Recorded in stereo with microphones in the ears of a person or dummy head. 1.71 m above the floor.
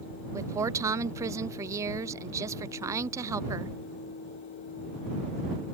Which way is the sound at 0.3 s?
20° right (ahead or behind).